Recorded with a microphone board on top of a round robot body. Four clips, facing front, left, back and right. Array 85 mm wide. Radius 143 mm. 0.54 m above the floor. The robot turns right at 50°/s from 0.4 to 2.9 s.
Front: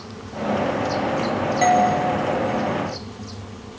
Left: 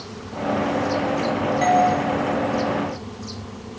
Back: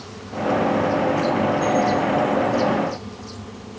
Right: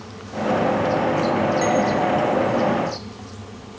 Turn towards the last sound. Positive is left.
turn(degrees=75)